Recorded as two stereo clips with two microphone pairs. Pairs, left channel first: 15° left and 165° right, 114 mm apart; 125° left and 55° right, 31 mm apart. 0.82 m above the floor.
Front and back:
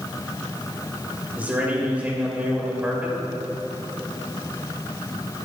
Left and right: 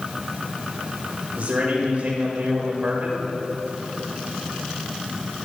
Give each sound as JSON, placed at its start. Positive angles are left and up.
{"t": 1.4, "sound": "a man speaking", "azimuth_deg": -90, "distance_m": 3.0}